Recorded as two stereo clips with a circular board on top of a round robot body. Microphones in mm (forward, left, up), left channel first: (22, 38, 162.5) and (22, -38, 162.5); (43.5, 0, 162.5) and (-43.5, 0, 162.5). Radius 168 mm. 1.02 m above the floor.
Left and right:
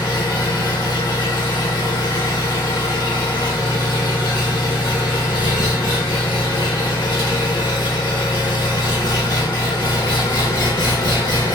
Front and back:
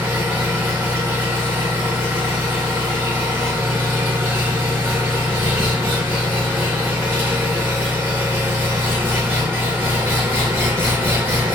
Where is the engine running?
115° left, 0.8 m.